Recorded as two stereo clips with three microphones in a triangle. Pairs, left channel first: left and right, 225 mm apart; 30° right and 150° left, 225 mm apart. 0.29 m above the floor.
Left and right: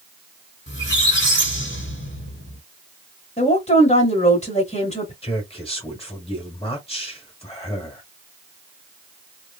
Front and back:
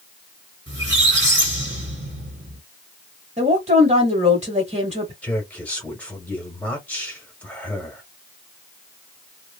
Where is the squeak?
120° left, 1.3 m.